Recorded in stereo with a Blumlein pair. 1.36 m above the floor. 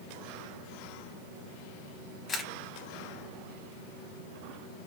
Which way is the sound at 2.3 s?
20° left.